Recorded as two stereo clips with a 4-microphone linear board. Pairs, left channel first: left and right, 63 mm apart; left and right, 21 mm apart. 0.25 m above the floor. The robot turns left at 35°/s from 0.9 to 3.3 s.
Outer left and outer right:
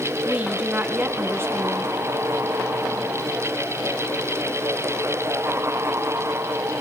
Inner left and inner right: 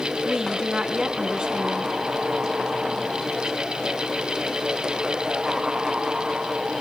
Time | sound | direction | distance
0.2 | a woman speaking | 30° right | 3 m